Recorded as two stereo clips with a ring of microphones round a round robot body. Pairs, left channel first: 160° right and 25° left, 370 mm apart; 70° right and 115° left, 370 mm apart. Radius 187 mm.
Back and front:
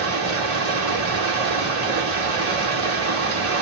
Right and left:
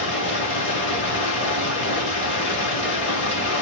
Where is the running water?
20° right, 1.7 m.